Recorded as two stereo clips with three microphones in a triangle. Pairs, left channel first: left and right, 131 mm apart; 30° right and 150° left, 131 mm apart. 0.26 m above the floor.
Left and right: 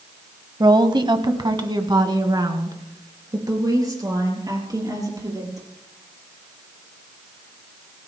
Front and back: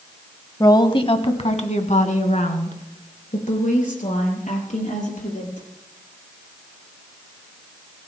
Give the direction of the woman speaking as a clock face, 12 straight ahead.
2 o'clock.